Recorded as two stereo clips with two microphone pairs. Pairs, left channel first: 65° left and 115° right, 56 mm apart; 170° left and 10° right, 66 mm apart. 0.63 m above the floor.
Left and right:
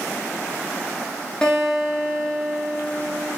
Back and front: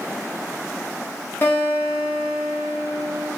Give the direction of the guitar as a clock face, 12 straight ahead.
8 o'clock.